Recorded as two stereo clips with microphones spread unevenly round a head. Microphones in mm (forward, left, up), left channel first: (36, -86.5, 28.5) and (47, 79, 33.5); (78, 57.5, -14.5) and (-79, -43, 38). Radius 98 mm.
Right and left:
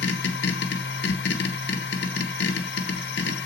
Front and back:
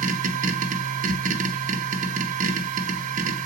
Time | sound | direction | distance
0.0 | a machine running | 90° right | 1.3 m